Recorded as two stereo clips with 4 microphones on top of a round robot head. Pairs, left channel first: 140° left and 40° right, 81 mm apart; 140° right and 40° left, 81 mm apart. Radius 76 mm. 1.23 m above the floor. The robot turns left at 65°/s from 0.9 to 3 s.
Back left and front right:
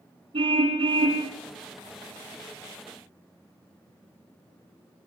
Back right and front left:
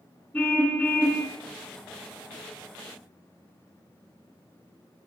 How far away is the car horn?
About 7 m.